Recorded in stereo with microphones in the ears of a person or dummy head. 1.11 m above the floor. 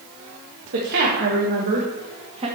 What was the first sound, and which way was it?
A woman speaking, 65° right (ahead or behind).